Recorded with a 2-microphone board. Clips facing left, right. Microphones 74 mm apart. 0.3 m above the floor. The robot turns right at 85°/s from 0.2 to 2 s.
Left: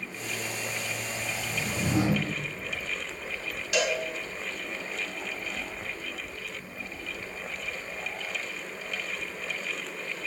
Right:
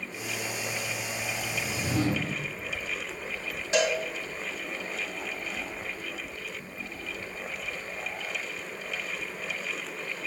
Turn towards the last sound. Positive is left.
turn(degrees=-35)  # may be behind; listen again after turning